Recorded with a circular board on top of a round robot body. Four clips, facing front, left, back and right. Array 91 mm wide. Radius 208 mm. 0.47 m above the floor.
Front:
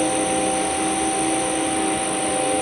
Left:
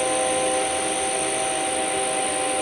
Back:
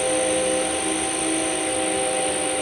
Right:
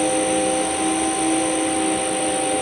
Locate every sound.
0.0 s an insect: 25° right, 7 m